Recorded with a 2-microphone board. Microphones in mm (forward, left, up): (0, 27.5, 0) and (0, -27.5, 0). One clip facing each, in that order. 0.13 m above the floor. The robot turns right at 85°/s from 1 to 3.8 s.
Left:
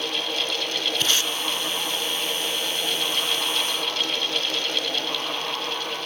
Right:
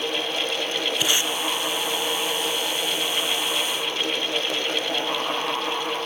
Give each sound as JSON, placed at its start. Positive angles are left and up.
{"t": 1.0, "sound": "tape being pulled", "side_deg": -10, "distance_m": 0.5}